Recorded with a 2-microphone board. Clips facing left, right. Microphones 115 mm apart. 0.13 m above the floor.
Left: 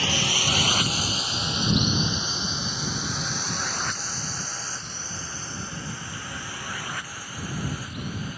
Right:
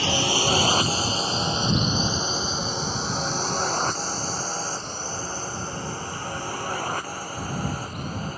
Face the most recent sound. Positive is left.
turn(degrees=-40)  # may be behind; listen again after turning